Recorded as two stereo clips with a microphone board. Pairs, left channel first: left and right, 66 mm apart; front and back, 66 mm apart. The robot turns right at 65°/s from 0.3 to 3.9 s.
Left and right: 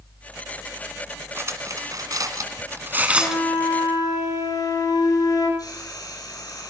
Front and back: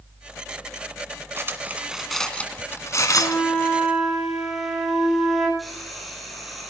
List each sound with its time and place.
1.4 s cutlery clinking: 135° right, 1.8 m; by 3.4 s straight ahead, 1.8 m
3.1 s a flute: 45° left, 5.5 m; by 5.5 s 95° left, 5.5 m
5.6 s frying: 90° left, 5.5 m